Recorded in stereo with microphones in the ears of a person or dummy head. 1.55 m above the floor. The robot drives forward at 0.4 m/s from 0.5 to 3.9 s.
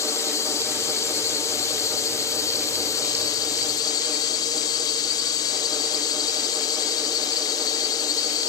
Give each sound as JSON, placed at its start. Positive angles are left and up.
{"t": 0.0, "sound": "a drone", "side_deg": 20}